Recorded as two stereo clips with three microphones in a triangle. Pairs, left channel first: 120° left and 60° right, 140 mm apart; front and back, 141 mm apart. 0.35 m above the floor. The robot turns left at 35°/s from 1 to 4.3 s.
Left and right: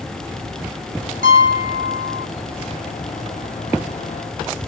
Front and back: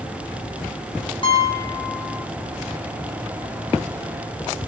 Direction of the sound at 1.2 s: 55° right.